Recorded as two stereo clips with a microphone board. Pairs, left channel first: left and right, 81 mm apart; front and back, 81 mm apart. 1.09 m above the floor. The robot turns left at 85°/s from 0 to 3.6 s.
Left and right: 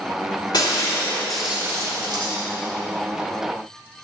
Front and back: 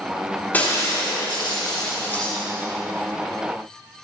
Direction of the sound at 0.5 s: 70° left.